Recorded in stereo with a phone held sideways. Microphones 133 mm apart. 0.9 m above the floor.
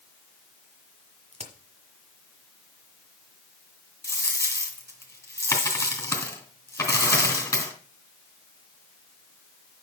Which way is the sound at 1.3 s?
55° right (ahead or behind).